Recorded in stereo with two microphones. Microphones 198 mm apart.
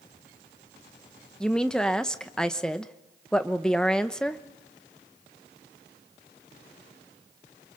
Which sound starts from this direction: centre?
A woman speaking, at 1.4 s.